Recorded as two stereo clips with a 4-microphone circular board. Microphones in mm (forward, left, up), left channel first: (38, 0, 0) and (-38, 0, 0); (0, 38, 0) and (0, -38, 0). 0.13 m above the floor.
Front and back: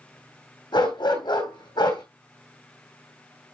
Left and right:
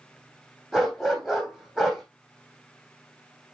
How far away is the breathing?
No breathing in this recording.